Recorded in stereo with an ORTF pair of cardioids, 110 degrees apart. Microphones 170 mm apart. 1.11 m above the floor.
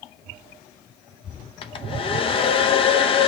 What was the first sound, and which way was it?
A hair dryer, 30° left.